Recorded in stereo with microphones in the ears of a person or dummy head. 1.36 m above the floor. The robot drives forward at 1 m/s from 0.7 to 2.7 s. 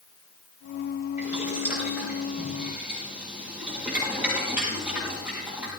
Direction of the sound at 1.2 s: 10° right (ahead or behind).